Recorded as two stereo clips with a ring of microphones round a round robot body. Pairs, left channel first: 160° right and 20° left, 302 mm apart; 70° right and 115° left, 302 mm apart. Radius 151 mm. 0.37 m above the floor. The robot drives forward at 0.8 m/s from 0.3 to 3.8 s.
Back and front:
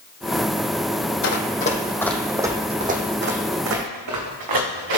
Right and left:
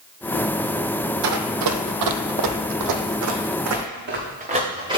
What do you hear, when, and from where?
1.2 s running footsteps: 155° left, 0.8 m; by 5.0 s 35° left, 2.5 m